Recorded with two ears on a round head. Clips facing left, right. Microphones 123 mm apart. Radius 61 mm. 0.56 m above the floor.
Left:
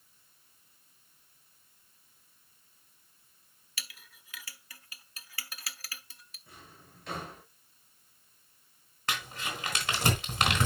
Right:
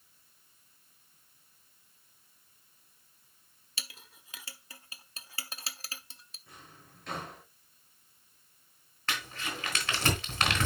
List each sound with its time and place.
3.8 s a clink: 25° right (ahead or behind), 0.6 m
6.5 s a drawer: 5° left (ahead or behind), 5 m
9.1 s crumpling: 15° left (ahead or behind), 3 m